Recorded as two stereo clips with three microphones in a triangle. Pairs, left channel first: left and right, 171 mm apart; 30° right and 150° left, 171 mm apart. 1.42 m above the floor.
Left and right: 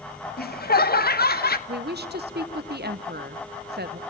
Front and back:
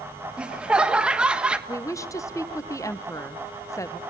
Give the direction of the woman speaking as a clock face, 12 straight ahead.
3 o'clock.